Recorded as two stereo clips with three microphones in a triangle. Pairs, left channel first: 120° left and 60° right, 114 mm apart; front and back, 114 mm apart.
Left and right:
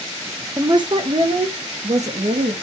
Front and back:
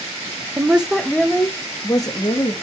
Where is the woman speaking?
115° right, 0.9 m; by 2.5 s 50° right, 2 m.